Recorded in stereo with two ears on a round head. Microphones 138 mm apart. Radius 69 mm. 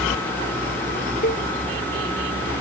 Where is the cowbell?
60° left (ahead or behind).